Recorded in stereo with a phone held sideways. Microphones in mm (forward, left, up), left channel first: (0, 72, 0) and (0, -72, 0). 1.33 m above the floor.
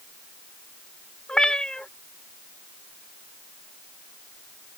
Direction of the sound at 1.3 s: 5° left (ahead or behind).